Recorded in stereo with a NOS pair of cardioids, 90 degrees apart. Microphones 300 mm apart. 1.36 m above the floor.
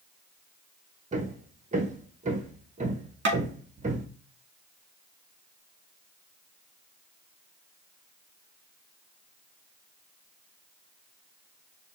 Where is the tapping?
40° right, 1.9 m.